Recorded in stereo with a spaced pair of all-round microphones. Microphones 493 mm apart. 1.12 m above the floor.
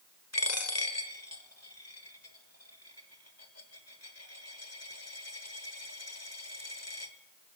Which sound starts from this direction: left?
A dropped coin, at 0.3 s.